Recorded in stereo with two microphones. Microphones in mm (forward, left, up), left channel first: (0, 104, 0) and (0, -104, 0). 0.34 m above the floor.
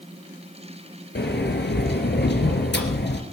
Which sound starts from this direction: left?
A sliding door, at 1.1 s.